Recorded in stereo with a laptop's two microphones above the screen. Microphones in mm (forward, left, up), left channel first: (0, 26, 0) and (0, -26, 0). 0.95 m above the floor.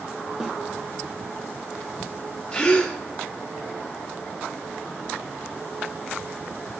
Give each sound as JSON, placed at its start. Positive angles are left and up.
{"t": 0.4, "sound": "a snare drum", "side_deg": -10, "distance_m": 0.6}
{"t": 2.5, "sound": "a gasp", "side_deg": 20, "distance_m": 1.2}